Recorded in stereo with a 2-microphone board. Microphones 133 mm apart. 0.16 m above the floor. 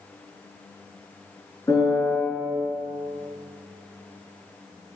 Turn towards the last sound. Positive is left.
turn(degrees=20)  # may be behind; listen again after turning